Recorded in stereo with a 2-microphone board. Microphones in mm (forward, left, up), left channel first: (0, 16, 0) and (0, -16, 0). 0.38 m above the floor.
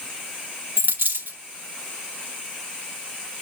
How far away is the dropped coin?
About 2.5 m.